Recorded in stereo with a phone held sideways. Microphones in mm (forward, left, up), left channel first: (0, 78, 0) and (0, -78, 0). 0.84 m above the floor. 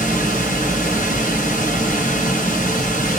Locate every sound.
0.0 s running water: 60° left (ahead or behind), 2 m